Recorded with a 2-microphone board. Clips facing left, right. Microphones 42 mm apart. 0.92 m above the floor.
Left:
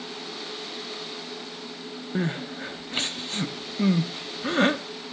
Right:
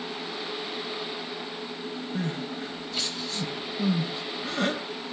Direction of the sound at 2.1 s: 40° left (ahead or behind).